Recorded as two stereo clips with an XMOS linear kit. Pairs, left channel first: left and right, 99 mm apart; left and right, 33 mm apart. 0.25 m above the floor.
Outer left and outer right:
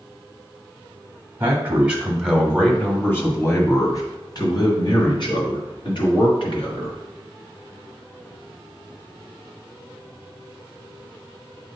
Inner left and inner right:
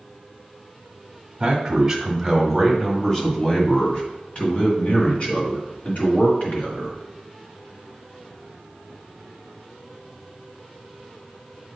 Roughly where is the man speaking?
Right.